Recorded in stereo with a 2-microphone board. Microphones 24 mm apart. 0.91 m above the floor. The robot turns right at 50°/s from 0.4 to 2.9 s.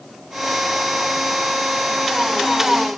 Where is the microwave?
No microwave in this recording.